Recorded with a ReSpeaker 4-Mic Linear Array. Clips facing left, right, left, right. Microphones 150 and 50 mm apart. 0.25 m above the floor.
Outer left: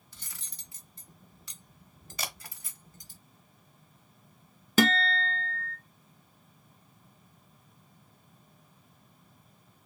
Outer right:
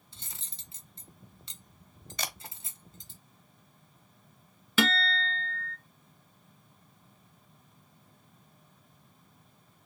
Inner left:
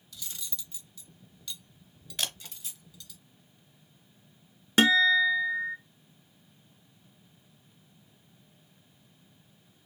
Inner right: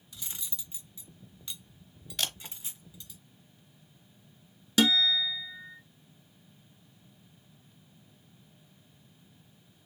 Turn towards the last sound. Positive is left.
turn(degrees=40)  # may be behind; listen again after turning